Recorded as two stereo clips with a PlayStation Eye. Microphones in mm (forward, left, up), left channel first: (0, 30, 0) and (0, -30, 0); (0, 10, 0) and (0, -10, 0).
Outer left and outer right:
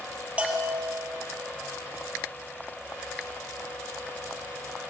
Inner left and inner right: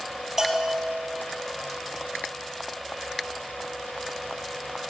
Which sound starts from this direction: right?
A bell, at 0.4 s.